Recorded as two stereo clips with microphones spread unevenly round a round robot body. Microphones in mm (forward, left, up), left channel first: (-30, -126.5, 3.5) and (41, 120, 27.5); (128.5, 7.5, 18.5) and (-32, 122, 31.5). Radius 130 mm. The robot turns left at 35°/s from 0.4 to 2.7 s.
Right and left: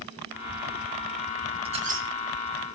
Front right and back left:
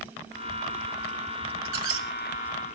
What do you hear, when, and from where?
1.6 s a squeak: 145° left, 2 m; by 2.1 s 130° left, 2 m